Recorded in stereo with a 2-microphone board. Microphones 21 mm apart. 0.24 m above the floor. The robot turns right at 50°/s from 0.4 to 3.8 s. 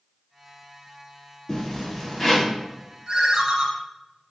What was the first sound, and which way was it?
A zipper, 145° left.